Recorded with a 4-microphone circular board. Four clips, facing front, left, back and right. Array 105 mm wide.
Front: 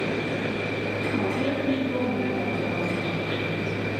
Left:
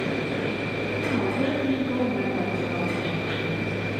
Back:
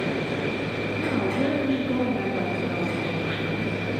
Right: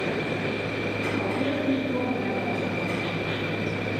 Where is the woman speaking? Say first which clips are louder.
Left 3 dB, back 3 dB; 140° left, 1.5 m.